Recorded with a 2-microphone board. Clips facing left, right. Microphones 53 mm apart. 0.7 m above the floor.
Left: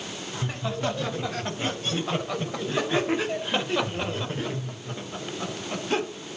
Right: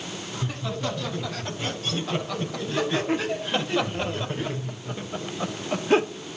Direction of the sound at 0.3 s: 30° left (ahead or behind).